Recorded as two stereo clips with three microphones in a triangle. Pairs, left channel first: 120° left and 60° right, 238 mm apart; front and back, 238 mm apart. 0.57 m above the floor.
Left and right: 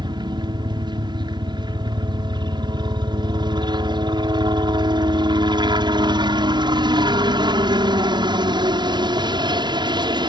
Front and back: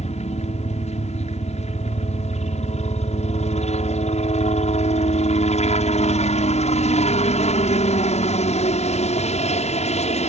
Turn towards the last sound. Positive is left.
turn(degrees=-10)